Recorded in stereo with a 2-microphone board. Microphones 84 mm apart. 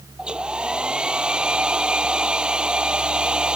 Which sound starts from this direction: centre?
A hair dryer, at 0.2 s.